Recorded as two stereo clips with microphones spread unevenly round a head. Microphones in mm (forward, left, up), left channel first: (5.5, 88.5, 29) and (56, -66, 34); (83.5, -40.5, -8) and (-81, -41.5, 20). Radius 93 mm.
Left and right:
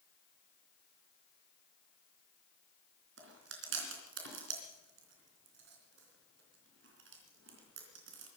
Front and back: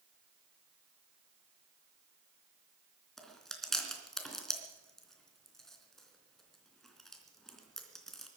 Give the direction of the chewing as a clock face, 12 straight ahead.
3 o'clock.